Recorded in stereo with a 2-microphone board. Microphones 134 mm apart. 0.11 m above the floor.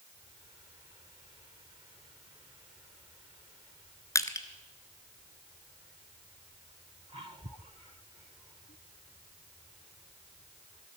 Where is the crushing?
25° left (ahead or behind), 0.9 m.